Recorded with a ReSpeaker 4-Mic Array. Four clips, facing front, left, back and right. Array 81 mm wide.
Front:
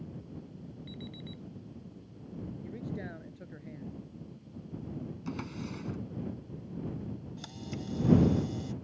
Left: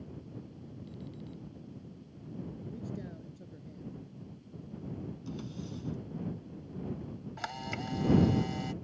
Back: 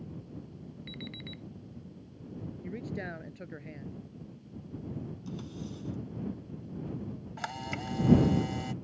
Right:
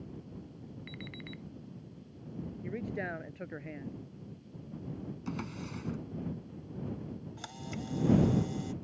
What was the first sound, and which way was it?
An alarm clock, 110° right.